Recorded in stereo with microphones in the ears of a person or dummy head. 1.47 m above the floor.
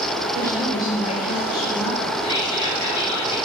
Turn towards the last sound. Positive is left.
turn(degrees=25)  # may be behind; listen again after turning